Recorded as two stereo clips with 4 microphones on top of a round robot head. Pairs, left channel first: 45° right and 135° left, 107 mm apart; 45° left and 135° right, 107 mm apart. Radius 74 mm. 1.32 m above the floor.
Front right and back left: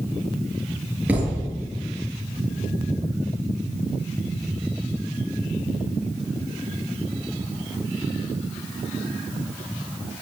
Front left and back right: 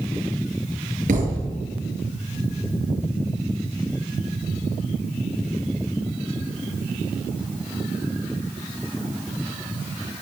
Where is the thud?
145° right, 6.5 m.